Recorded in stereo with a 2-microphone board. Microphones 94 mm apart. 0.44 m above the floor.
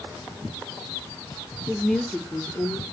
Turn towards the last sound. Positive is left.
turn(degrees=30)  # may be behind; listen again after turning